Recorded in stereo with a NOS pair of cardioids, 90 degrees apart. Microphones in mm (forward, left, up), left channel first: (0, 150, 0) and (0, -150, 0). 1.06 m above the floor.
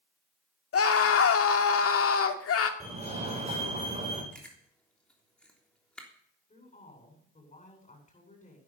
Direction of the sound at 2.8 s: 20° right.